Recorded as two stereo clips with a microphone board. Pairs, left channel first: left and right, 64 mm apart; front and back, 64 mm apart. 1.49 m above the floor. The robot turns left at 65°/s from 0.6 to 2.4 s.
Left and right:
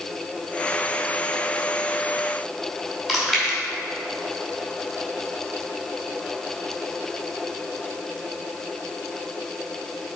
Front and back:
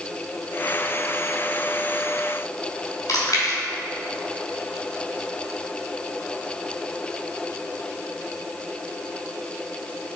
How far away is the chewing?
About 2.5 m.